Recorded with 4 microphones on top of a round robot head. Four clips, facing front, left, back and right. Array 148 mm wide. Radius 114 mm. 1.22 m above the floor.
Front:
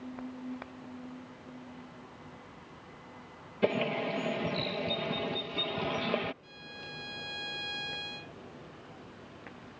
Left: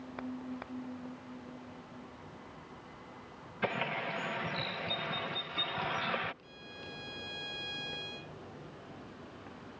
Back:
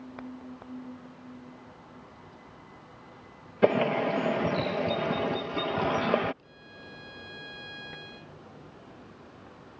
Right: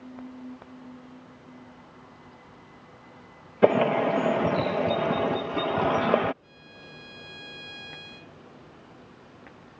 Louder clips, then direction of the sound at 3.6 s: Right 16 dB, back 6 dB; 105° right.